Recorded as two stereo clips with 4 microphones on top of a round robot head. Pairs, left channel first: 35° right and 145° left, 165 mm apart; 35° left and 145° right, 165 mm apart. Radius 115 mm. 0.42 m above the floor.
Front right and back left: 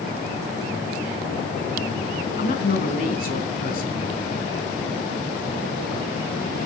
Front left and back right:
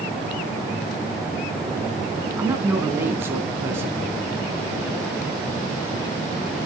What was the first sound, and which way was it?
A man speaking, 70° right.